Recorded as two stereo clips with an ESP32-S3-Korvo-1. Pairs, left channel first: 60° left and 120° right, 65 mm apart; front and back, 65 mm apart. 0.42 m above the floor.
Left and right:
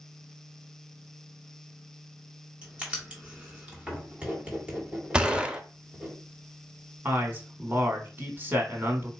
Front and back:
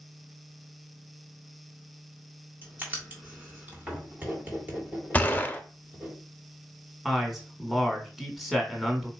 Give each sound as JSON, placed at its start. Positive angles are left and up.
{"t": 2.6, "sound": "writing", "azimuth_deg": -170, "distance_m": 1.6}
{"t": 5.1, "sound": "a gunshot", "azimuth_deg": -55, "distance_m": 0.6}
{"t": 7.0, "sound": "a man speaking", "azimuth_deg": -95, "distance_m": 1.3}